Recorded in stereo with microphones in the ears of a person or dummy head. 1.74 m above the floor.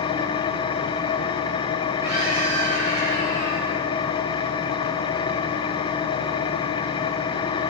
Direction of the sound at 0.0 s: 30° left (ahead or behind).